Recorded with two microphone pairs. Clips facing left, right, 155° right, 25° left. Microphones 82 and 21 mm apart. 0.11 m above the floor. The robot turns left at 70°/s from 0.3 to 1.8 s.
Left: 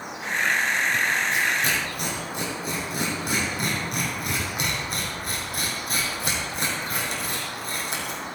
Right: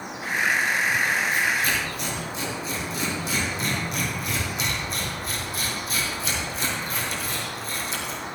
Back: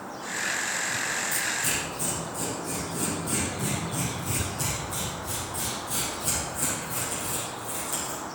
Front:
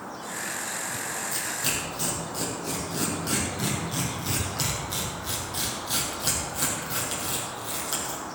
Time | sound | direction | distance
1.3 | tearing paper | 90° left | 3.5 m